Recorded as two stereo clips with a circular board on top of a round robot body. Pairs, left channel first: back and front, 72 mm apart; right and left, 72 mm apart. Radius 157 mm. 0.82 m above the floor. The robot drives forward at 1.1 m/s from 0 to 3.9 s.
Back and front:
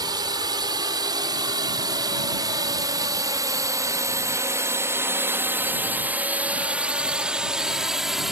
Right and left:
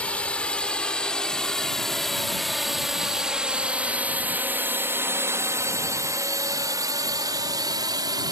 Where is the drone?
15° right; by 8.3 s 85° left.